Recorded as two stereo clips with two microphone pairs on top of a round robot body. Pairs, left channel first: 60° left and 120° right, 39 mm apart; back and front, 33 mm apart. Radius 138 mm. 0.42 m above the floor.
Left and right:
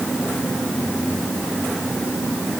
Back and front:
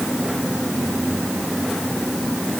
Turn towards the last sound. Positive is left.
No sound to turn to.